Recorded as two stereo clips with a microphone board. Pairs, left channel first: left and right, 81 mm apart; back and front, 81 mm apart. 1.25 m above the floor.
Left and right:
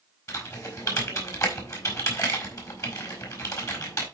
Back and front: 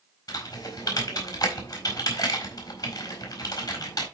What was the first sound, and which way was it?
Typing on a keyboard, 140° left.